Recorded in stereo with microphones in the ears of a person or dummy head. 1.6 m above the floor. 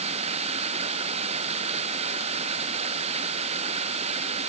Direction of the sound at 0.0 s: 40° right (ahead or behind).